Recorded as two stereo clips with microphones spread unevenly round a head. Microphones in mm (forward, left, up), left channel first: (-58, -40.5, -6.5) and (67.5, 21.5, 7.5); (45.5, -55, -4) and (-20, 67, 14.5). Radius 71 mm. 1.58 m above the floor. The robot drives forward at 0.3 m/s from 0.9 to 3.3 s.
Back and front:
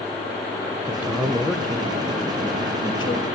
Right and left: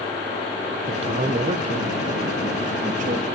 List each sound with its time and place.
0.9 s a man speaking: 95° left, 0.6 m; by 3.3 s 150° left, 1.0 m